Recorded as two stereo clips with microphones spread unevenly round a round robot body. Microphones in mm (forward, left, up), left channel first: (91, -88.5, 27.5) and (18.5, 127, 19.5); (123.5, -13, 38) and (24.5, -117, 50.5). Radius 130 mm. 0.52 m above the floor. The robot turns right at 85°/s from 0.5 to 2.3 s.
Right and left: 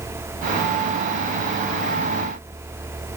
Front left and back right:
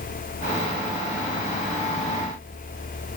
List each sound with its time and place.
Only background noise.